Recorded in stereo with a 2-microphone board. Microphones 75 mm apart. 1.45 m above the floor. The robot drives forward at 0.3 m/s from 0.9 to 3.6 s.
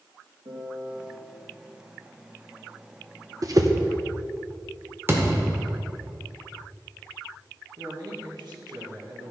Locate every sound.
0.5 s a piano: 80° right, 1.6 m
3.4 s a whoosh: 50° right (ahead or behind), 0.7 m
5.1 s a thud: 30° right (ahead or behind), 1.5 m
7.8 s a man speaking: 70° right (ahead or behind), 1.9 m